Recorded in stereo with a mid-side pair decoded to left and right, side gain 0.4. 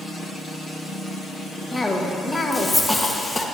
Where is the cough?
15° left, 1.3 m.